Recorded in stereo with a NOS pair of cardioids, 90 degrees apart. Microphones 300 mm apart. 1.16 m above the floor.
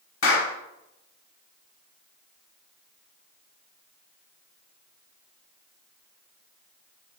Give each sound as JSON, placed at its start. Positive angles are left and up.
{"t": 0.2, "sound": "a clap", "azimuth_deg": 45, "distance_m": 1.3}